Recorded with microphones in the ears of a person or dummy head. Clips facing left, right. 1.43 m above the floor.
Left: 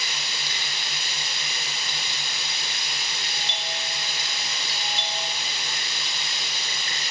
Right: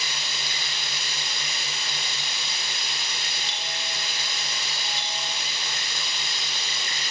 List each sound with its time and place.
0.0 s running water: 80° right, 6.5 m
3.2 s a doorbell: 75° right (ahead or behind), 2 m